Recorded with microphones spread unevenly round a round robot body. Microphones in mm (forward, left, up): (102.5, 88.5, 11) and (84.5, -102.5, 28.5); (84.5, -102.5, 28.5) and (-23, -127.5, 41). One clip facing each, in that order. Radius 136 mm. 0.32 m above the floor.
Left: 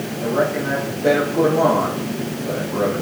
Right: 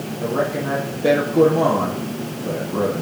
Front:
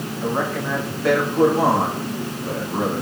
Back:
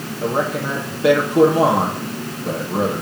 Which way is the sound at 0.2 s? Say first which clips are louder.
Left 2 dB, back 3 dB; 165° right.